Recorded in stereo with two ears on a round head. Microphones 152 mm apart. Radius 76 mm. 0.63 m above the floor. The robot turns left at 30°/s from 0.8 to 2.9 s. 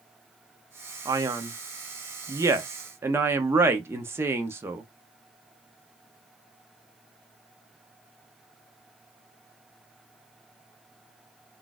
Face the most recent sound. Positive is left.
turn(degrees=-15)  # may be behind; listen again after turning